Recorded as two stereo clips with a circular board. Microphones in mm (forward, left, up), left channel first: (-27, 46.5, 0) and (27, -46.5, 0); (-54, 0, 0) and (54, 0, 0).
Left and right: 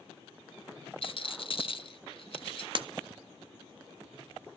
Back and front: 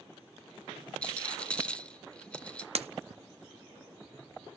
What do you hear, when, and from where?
1.0 s a rattle: 105° left, 0.7 m
2.8 s breaking glass: 20° right, 0.6 m